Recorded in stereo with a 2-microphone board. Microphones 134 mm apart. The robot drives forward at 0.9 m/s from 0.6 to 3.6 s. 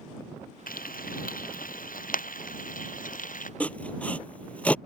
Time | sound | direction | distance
0.7 | frying | 80° left | ?
3.6 | sawing | 10° left (ahead or behind) | ?